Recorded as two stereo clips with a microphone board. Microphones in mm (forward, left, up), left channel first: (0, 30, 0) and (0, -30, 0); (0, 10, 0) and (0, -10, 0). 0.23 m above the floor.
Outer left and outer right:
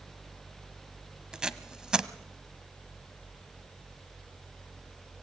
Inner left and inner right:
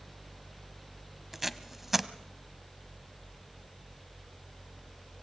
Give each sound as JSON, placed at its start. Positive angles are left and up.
{"t": 1.3, "sound": "tape being pulled", "side_deg": -15, "distance_m": 1.0}